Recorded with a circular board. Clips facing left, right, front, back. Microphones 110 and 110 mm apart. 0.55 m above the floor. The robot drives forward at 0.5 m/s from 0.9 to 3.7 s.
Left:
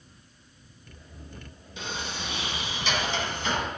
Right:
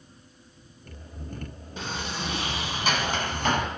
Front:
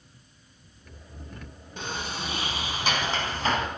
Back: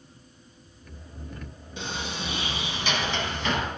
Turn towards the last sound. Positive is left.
turn(degrees=-55)